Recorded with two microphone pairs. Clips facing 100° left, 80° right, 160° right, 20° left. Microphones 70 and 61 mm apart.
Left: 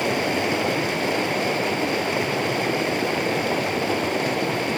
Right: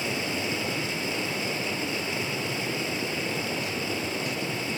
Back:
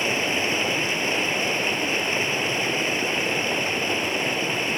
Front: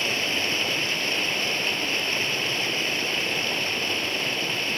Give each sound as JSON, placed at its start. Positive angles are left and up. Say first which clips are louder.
{"t": 0.0, "sound": "running water", "louder": "left 8 dB, back 3 dB", "azimuth_deg": 130, "distance_m": 1.5}